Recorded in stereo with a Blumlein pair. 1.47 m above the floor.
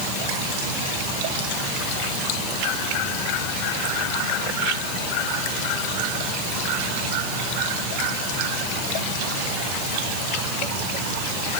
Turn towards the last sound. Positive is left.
No sound to turn to.